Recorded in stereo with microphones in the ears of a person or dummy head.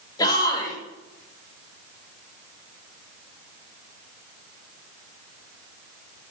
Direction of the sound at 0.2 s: 20° left (ahead or behind).